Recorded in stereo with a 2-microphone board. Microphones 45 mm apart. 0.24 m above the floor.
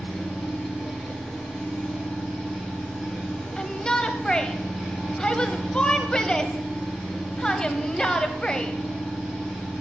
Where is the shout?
15° left (ahead or behind), 1.0 m.